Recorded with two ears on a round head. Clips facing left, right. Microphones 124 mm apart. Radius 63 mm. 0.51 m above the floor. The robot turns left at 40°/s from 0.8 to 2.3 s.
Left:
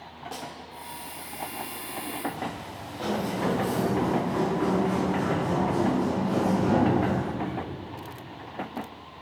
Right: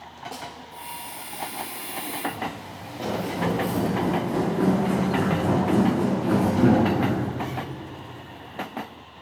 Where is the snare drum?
5° right (ahead or behind), 1.0 m.